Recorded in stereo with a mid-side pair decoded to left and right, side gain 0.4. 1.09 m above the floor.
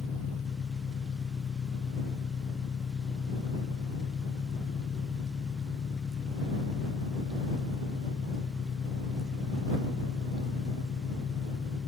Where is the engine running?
50° left.